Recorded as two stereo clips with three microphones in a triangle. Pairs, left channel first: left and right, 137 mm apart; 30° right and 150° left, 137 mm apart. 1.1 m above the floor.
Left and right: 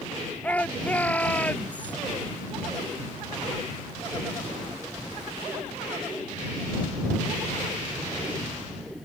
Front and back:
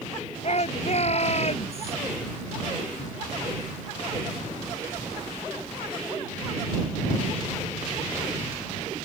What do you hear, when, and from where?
0.4 s a shout: 10° left